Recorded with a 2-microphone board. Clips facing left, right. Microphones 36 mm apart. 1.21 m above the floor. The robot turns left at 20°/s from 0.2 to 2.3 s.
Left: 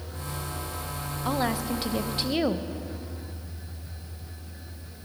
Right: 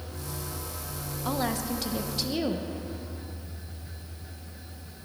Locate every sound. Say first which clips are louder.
1.2 s a woman speaking: left 2 dB; 10° left (ahead or behind), 0.8 m; by 2.7 s 30° left (ahead or behind), 0.8 m